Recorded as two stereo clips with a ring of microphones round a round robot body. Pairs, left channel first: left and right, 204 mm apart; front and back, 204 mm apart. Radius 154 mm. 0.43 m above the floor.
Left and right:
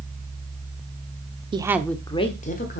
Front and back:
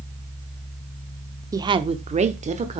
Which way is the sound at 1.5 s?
125° right.